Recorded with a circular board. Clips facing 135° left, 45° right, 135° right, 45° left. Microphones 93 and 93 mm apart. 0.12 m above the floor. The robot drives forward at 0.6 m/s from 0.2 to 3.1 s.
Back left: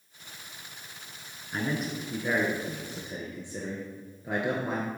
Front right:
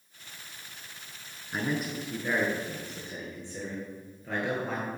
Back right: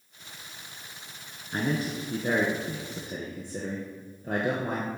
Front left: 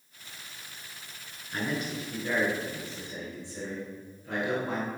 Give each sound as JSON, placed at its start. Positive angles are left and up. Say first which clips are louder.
{"t": 1.5, "sound": "a man speaking", "louder": "even, back right 3 dB", "azimuth_deg": -115, "distance_m": 1.2}